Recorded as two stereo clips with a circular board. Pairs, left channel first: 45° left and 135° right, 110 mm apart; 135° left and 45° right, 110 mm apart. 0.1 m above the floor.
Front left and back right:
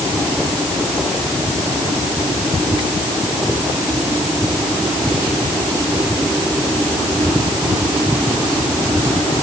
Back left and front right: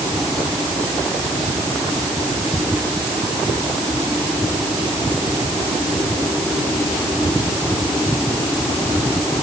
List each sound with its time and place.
Only background noise.